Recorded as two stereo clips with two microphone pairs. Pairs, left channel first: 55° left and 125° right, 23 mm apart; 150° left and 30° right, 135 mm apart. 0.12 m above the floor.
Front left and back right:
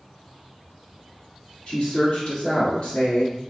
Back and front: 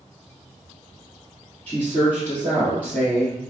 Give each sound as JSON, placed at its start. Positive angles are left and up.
{"t": 1.7, "sound": "a woman speaking", "azimuth_deg": 75, "distance_m": 1.8}